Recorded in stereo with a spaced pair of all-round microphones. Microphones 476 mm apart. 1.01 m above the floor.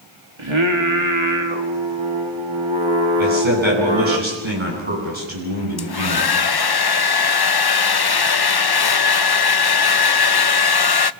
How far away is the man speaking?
About 10 m.